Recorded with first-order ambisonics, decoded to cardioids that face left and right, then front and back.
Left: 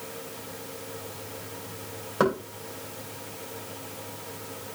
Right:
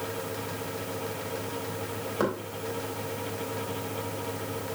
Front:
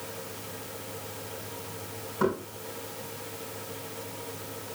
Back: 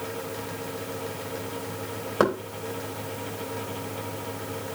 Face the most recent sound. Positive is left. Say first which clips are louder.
# left 5 dB, back 5 dB
turn(degrees=160)